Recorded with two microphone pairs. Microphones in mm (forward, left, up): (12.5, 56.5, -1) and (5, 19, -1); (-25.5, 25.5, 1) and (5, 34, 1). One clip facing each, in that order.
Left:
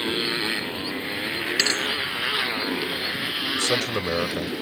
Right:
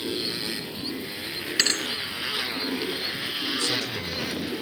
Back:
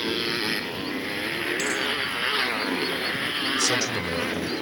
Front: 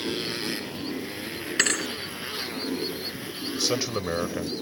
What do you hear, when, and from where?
0.0 s a motorcycle: 130° left; by 4.6 s 160° left
1.6 s a thud: 10° right
3.5 s a man speaking: 85° left